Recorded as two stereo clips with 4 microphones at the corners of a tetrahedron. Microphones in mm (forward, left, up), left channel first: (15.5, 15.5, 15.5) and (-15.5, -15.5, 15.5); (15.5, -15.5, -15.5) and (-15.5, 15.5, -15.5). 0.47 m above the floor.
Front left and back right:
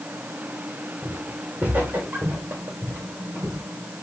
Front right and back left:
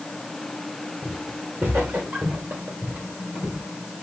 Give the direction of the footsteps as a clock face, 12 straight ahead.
7 o'clock.